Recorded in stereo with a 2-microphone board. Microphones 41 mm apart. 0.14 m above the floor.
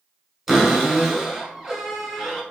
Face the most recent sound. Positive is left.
turn(degrees=-10)  # may be behind; listen again after turning